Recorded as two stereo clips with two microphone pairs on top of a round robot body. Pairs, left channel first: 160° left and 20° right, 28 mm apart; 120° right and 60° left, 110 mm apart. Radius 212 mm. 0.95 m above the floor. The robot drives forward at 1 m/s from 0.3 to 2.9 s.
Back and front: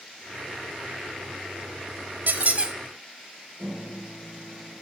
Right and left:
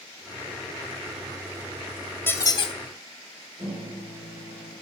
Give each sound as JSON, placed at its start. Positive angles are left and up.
{"t": 2.3, "sound": "a squeak", "azimuth_deg": -45, "distance_m": 0.7}
{"t": 3.6, "sound": "a microwave", "azimuth_deg": 15, "distance_m": 4.5}